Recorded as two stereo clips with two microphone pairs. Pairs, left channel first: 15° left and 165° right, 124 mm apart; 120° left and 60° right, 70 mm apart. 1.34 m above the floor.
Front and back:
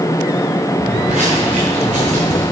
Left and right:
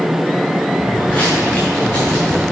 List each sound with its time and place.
0.8 s footsteps: 170° right, 4.5 m; by 2.4 s straight behind, 5.5 m